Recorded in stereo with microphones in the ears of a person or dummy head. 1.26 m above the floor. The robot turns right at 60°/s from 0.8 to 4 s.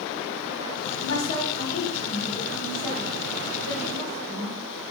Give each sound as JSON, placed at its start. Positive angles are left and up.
{"t": 1.0, "sound": "a woman speaking", "azimuth_deg": 85, "distance_m": 0.9}